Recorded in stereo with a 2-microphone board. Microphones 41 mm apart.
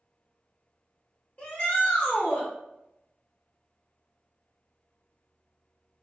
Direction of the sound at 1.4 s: 35° left (ahead or behind).